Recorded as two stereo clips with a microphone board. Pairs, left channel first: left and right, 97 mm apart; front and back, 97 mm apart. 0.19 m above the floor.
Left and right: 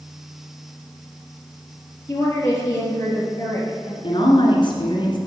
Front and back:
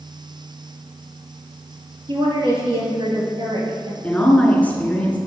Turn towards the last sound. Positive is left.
turn(degrees=75)